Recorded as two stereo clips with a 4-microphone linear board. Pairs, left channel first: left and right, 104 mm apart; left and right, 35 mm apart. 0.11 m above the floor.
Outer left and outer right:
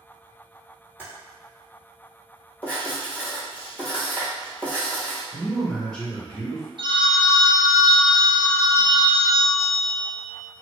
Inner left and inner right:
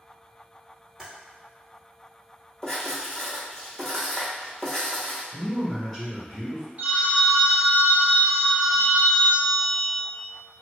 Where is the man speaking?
10° left (ahead or behind), 1.3 m.